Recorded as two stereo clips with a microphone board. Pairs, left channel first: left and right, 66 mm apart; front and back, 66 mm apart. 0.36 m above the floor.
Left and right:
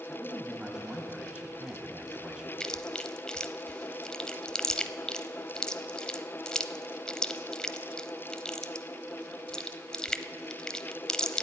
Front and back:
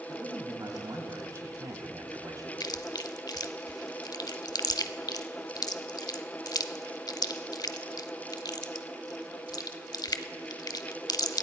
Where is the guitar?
No guitar in this recording.